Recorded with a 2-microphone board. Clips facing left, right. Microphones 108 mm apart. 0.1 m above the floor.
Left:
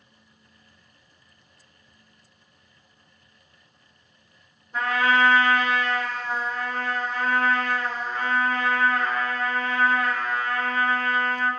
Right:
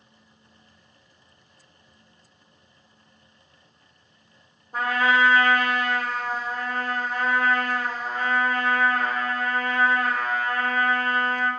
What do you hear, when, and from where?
4.7 s a trumpet: 50° right (ahead or behind), 1.5 m